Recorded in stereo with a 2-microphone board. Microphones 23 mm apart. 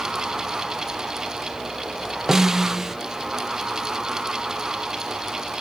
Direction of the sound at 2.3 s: 20° right (ahead or behind).